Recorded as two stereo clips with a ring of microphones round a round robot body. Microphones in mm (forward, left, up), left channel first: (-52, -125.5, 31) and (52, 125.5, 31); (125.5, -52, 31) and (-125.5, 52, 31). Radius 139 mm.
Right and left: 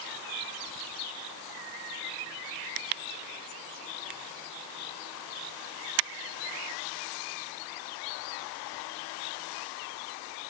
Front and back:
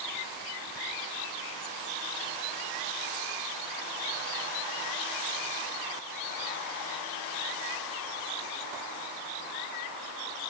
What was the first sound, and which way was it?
Only background noise.